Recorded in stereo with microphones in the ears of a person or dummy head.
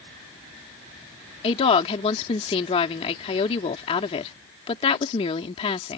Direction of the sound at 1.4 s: 35° left (ahead or behind).